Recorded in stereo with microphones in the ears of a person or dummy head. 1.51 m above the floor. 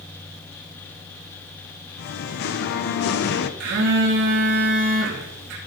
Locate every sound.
2.0 s singing: 60° left (ahead or behind), 0.7 m
3.6 s a phone buzzing: 70° right (ahead or behind), 2.5 m